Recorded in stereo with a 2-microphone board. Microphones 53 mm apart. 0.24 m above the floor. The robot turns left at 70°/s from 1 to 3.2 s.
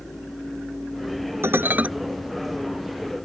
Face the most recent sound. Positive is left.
turn(degrees=115)